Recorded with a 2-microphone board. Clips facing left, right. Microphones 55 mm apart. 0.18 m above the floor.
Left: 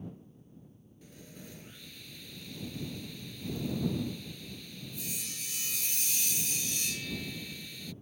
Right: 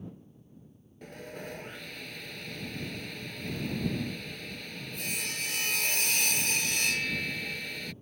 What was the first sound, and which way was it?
Sawing, 65° right (ahead or behind).